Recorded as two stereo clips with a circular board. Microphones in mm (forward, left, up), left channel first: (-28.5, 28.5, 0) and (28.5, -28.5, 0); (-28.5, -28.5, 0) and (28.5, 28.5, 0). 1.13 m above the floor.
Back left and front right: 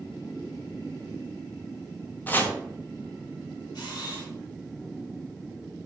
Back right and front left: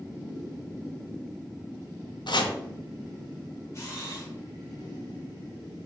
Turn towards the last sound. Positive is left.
turn(degrees=170)